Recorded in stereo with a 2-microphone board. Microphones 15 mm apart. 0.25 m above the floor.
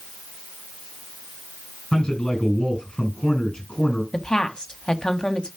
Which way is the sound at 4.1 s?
45° left (ahead or behind).